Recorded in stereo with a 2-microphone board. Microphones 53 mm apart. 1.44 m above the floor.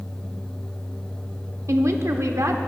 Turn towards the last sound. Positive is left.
turn(degrees=-70)  # may be behind; listen again after turning